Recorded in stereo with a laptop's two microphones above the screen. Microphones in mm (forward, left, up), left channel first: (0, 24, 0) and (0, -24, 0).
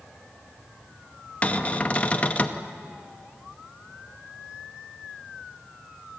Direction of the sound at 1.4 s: 30° left (ahead or behind).